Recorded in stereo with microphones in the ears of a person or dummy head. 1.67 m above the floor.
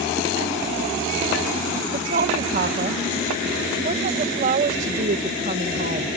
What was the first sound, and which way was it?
A woman speaking, 45° right (ahead or behind).